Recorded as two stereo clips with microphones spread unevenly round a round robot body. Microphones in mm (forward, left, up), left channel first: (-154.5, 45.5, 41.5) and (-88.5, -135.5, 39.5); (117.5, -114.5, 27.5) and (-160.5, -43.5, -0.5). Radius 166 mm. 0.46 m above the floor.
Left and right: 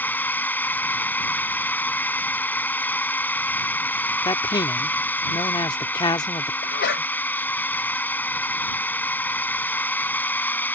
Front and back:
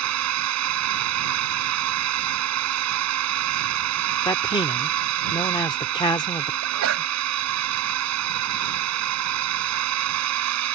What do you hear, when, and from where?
0.0 s a drone: 170° right
4.2 s a man speaking: 60° left
6.6 s a sneeze: 120° left